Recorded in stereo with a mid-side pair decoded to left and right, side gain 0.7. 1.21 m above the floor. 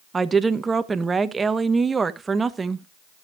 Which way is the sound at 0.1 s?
20° right.